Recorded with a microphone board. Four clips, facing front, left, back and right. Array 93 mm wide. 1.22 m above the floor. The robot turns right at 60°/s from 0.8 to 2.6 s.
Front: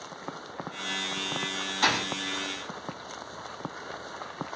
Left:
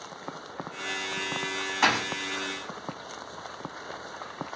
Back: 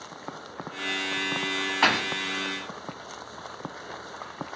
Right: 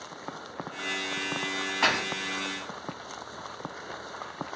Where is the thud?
165° left, 0.6 m; by 2.1 s straight behind, 0.6 m.